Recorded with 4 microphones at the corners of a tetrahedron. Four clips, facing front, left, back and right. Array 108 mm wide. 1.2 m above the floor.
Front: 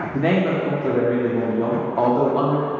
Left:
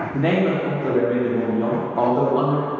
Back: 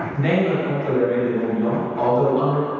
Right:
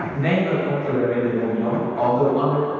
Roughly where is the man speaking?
Ahead left.